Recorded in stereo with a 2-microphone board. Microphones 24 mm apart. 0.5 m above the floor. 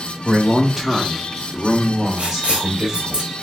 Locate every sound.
0.2 s a man speaking: 10° left (ahead or behind), 0.9 m; by 3.2 s 25° right (ahead or behind), 1.6 m
2.2 s writing: 65° right (ahead or behind), 0.8 m